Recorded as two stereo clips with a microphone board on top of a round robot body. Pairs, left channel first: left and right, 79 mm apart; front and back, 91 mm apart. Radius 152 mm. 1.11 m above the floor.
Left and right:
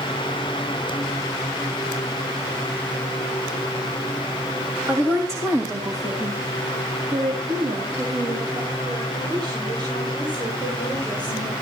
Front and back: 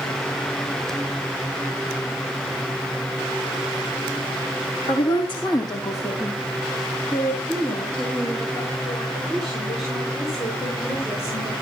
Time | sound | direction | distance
4.9 | a woman speaking | 30° right | 3 m